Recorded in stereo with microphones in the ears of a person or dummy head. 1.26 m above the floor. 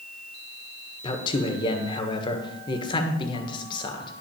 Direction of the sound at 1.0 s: 30° left (ahead or behind).